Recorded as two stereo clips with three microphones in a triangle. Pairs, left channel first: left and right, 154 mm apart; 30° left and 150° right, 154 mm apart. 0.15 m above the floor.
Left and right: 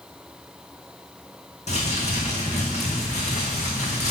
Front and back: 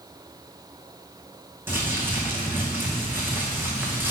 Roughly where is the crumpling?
Behind left.